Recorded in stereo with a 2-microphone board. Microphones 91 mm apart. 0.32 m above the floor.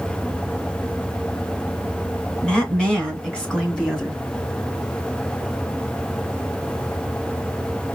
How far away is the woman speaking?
About 2.5 m.